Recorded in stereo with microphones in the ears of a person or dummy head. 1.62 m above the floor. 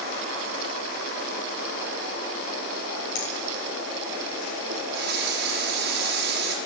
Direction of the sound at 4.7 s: 60° right (ahead or behind).